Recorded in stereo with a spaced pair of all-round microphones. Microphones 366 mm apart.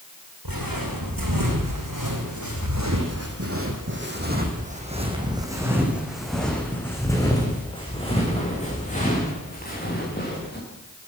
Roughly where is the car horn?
No car horn in this recording.